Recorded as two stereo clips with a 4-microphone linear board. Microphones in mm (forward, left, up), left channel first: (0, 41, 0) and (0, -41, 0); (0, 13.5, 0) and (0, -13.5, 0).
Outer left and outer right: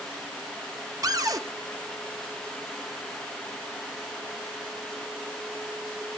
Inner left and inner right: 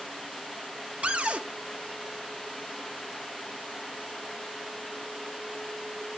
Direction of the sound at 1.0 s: 45° right (ahead or behind).